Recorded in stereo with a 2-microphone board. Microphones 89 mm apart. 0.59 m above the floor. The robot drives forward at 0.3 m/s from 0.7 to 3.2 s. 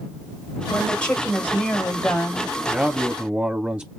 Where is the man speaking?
15° right (ahead or behind), 0.8 m.